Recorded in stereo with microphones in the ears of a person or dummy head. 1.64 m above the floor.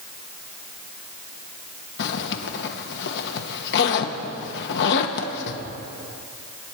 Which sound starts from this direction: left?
A zipper, at 2.0 s.